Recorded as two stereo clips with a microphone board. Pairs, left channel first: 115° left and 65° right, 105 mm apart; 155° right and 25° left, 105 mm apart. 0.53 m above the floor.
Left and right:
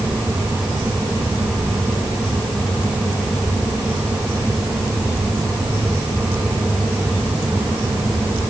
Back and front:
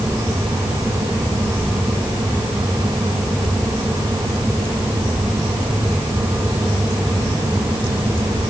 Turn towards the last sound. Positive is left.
No sound to turn to.